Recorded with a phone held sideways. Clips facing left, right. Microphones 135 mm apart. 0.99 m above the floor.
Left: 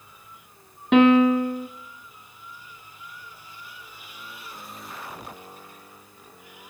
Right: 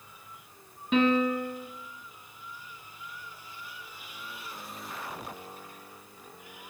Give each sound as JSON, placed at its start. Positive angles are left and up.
{"t": 0.9, "sound": "a piano", "side_deg": 70, "distance_m": 1.0}